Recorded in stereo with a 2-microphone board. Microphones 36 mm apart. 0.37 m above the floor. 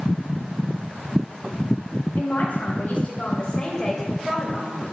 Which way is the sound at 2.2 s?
55° left (ahead or behind).